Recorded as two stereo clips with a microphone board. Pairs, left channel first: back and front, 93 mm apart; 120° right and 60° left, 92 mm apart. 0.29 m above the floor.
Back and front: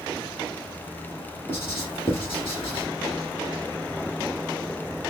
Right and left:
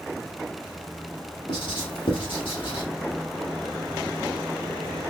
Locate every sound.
1.5 s writing: 115° right, 2.5 m